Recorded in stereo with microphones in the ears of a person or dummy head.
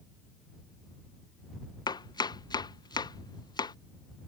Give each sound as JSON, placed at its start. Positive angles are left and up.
{"t": 1.9, "sound": "chopping", "side_deg": 20}